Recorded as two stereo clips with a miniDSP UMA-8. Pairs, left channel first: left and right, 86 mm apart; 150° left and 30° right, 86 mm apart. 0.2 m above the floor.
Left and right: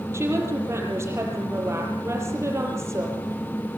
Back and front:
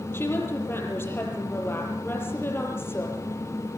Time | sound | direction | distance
0.1 | a woman speaking | 150° right | 6.5 m